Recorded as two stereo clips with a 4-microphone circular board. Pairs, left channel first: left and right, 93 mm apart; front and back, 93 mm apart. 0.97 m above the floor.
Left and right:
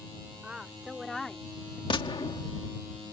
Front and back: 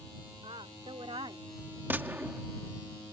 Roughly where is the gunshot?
Left.